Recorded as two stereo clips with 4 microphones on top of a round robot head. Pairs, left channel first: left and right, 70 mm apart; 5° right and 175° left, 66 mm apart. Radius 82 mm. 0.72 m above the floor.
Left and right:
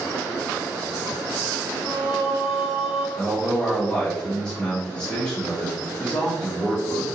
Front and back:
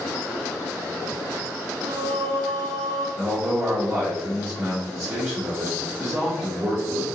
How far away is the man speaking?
About 1.3 m.